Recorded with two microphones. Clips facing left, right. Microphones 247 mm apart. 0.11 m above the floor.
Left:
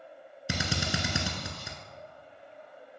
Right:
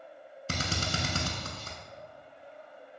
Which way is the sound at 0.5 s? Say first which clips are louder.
Left 2 dB; 15° left (ahead or behind).